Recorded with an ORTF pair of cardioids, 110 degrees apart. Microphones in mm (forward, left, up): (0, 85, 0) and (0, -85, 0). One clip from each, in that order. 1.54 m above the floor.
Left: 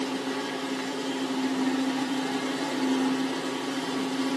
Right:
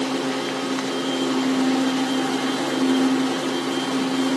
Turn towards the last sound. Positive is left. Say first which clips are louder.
# right 6 dB
turn(degrees=-50)